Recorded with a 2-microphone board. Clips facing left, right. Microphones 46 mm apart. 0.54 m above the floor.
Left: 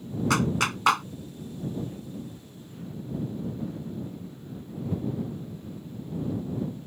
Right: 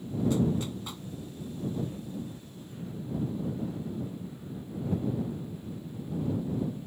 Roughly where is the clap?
Left.